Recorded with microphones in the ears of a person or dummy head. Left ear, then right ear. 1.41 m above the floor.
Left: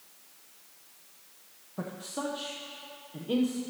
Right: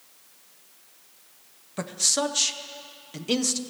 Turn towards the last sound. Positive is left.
turn(degrees=-60)  # may be behind; listen again after turning